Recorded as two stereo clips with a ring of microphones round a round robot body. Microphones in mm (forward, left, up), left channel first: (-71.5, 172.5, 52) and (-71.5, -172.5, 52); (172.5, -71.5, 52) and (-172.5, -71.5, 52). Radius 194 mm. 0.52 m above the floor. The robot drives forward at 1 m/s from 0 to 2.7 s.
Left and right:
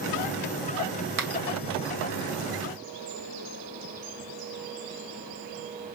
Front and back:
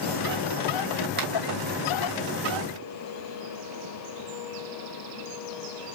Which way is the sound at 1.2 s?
120° right.